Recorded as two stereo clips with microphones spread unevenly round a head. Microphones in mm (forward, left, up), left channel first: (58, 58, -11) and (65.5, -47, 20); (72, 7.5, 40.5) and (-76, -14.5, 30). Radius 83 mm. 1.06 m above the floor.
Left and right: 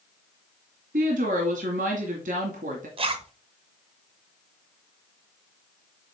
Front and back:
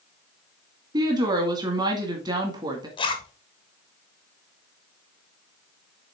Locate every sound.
0.9 s a woman speaking: 110° right, 2 m
3.0 s a zipper: 50° right, 1.4 m